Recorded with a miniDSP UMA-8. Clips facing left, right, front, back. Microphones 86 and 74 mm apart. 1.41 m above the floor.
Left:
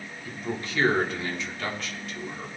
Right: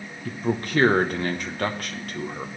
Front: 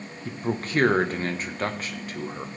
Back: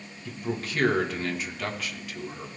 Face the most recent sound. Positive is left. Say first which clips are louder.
# right 7 dB, front 3 dB
turn(degrees=-50)